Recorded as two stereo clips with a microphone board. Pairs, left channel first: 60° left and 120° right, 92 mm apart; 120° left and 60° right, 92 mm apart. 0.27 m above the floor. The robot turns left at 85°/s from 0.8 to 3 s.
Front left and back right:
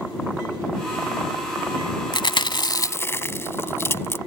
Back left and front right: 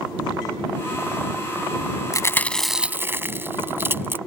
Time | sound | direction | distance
2.1 | chewing | 75° left | ?